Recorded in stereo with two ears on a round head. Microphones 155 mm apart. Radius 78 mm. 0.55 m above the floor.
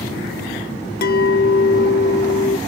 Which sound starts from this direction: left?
A clink, at 1.0 s.